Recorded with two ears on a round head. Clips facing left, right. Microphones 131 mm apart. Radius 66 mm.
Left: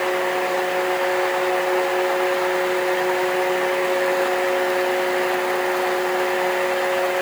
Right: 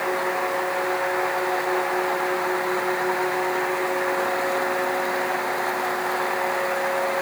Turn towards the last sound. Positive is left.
No sound to turn to.